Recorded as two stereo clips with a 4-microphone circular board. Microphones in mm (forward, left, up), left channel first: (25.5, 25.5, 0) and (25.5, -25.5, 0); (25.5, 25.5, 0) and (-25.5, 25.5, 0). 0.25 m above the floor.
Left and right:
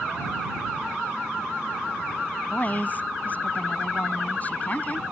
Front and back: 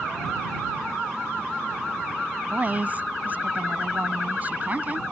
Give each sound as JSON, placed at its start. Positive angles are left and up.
{"t": 2.5, "sound": "a woman speaking", "azimuth_deg": 135}